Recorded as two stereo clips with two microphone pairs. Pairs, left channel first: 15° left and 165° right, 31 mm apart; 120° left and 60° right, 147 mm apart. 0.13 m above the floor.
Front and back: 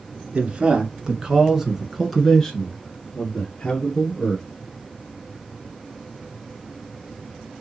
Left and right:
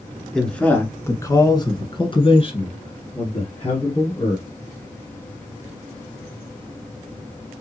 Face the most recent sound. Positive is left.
turn(degrees=75)